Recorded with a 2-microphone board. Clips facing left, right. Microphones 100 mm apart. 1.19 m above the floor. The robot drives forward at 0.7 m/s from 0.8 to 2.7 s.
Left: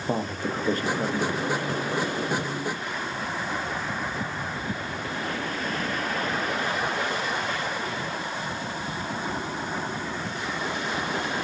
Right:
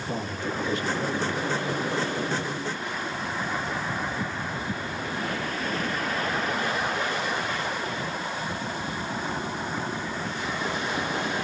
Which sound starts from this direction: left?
A man speaking, at 0.1 s.